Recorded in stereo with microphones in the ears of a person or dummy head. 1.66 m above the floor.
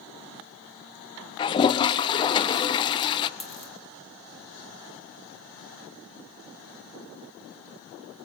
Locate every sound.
1.4 s a toilet flushing: 25° left (ahead or behind), 0.5 m
3.4 s a dropped coin: 5° right (ahead or behind), 1.9 m